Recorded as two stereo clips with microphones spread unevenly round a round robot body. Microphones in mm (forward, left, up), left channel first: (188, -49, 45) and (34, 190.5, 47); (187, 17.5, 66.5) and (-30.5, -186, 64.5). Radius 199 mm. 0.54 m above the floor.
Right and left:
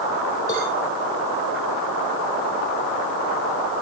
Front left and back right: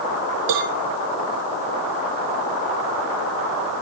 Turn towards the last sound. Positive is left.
turn(degrees=-140)